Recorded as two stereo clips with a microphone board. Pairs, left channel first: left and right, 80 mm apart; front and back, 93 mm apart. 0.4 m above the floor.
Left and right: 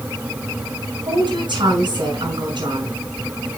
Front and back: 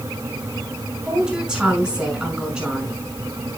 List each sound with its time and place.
1.1 s a woman speaking: 100° right, 5 m